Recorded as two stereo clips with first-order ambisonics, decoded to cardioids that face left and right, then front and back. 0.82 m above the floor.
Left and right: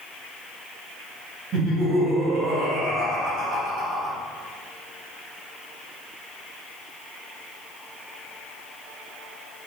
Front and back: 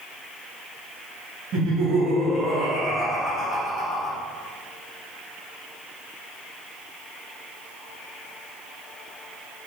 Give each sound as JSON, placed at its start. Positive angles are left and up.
{"t": 1.5, "sound": "laughter", "azimuth_deg": -145, "distance_m": 1.2}